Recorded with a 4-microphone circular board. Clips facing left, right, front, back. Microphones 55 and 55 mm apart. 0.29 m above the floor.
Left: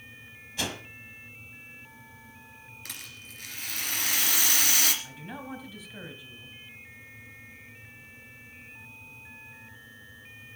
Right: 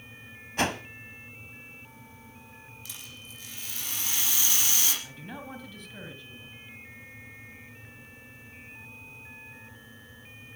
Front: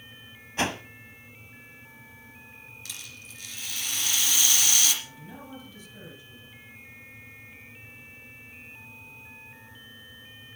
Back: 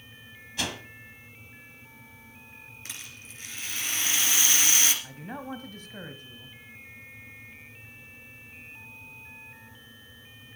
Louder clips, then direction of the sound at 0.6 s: Right 6 dB, front 5 dB; 50° right.